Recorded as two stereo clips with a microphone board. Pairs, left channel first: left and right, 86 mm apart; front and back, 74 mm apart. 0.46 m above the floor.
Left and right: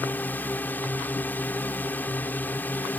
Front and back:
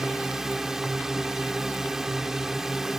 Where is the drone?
105° left.